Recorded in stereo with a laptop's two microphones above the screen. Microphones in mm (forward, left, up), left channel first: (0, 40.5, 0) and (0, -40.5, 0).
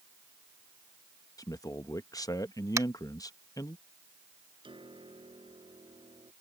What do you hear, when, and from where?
1.4 s a man speaking: 45° left (ahead or behind)
2.8 s tapping: 40° right (ahead or behind)
4.6 s a piano: 90° right